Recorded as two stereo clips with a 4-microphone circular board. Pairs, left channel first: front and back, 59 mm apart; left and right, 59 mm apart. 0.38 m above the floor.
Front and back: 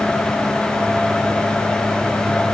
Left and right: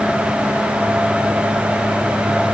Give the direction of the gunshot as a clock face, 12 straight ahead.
No gunshot in this recording.